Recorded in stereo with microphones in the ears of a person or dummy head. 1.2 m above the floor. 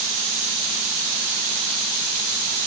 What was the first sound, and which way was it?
Only background noise.